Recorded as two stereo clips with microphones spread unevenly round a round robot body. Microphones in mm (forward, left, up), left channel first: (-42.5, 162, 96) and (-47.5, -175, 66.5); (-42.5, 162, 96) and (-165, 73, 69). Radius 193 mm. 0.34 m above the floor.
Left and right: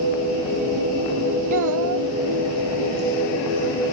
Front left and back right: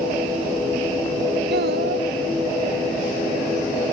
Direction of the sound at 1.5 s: 130° right.